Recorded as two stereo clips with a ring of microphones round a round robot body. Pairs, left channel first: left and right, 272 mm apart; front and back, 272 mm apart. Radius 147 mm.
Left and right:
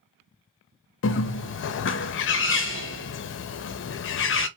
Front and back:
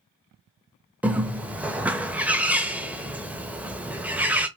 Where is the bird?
95° left, 0.7 m.